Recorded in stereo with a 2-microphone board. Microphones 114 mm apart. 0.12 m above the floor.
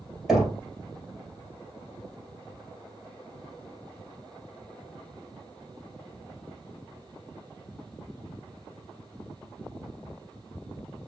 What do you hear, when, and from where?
0.3 s knocking: centre (ahead or behind), 2.5 m